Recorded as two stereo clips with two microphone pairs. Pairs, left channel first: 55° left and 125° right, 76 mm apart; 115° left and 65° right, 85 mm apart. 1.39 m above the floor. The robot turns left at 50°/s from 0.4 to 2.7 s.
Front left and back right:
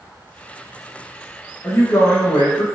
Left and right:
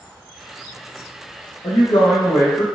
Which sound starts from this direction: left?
A woman speaking, at 1.6 s.